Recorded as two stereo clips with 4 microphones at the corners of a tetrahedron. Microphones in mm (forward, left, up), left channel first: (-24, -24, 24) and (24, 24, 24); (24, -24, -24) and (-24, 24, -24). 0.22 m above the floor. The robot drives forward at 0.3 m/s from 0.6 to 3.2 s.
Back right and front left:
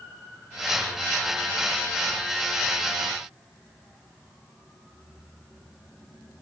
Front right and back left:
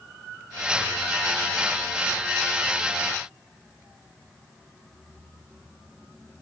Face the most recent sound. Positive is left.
No sound to turn to.